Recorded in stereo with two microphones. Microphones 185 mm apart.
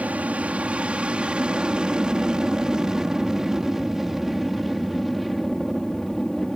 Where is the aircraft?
5° right (ahead or behind); by 6.6 s centre (ahead or behind).